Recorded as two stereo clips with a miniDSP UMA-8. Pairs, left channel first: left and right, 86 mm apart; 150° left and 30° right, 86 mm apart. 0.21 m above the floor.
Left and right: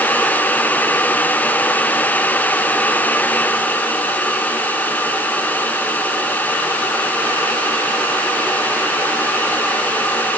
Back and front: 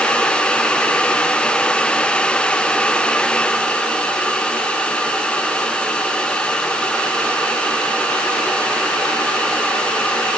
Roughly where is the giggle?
I don't hear a giggle.